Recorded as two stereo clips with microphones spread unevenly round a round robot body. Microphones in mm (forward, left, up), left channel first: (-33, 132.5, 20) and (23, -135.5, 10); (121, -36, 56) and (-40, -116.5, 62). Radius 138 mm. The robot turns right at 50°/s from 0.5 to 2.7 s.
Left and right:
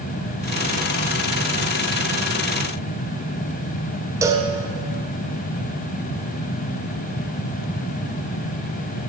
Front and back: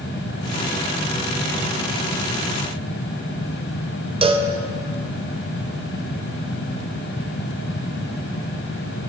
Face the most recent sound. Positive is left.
turn(degrees=-140)